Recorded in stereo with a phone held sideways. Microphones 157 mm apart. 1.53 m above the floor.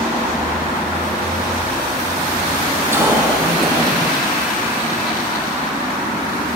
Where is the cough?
15° right (ahead or behind), 3 m.